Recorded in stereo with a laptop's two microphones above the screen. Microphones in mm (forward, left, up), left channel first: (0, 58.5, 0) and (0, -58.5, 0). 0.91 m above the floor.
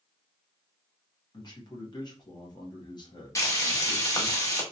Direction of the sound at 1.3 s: 40° left (ahead or behind).